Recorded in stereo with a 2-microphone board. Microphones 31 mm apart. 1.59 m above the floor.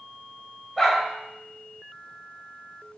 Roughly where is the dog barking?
Centre.